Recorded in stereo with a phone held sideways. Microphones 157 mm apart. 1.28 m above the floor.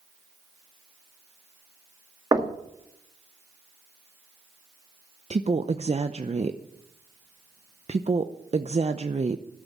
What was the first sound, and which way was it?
Knocking, 25° right (ahead or behind).